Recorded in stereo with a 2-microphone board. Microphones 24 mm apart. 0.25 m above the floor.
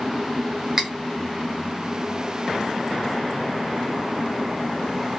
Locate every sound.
0.8 s cutlery clinking: 20° right (ahead or behind), 1.1 m